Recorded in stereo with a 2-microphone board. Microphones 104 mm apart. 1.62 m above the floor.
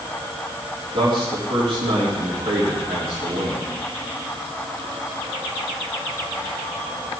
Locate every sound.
0.9 s a man speaking: 65° right (ahead or behind), 3 m